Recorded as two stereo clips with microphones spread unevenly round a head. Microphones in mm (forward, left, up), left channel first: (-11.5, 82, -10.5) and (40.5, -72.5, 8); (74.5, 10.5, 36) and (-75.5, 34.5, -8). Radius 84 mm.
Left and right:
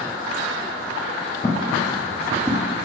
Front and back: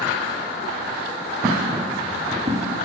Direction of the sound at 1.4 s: 45° left.